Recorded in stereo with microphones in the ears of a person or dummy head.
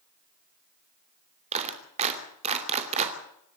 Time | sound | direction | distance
1.5 | a clap | 35° right (ahead or behind) | 2.5 m